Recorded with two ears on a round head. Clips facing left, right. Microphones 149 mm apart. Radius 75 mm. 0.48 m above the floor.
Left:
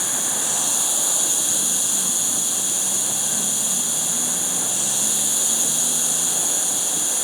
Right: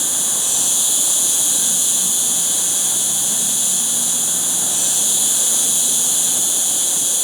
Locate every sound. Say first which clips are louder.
0.0 s an insect: left 1 dB; 35° right (ahead or behind), 0.9 m